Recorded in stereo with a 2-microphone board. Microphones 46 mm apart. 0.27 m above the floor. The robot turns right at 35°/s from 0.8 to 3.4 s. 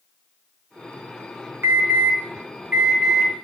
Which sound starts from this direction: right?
An alarm, at 1.6 s.